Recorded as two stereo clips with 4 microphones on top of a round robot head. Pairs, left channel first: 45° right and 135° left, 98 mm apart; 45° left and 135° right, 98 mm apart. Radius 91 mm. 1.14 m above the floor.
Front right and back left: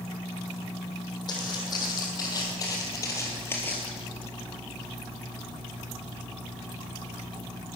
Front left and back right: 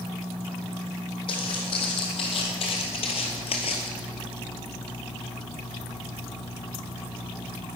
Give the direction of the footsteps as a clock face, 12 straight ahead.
12 o'clock.